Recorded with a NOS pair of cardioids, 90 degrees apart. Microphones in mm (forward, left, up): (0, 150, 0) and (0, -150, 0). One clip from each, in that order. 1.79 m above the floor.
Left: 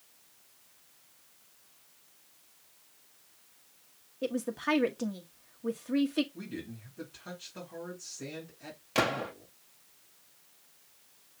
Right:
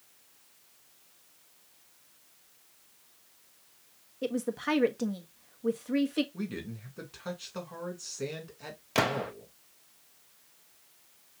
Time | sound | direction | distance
4.2 | a woman speaking | 5° right | 1.1 m
6.3 | a man speaking | 70° right | 3 m
8.9 | a gunshot | 10° right | 1.1 m